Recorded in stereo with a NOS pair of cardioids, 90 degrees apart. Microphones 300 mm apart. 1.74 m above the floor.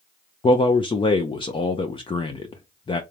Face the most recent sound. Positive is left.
turn(degrees=15)